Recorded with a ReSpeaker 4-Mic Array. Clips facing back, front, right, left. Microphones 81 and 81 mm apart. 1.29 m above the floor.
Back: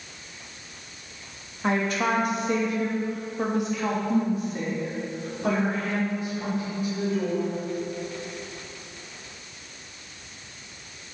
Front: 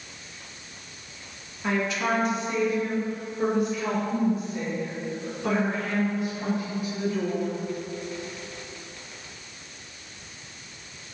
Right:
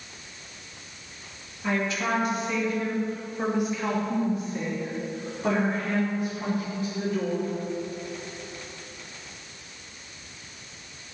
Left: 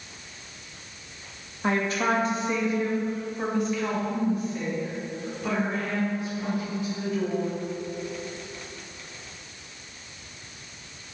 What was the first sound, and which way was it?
A woman speaking, 130° left.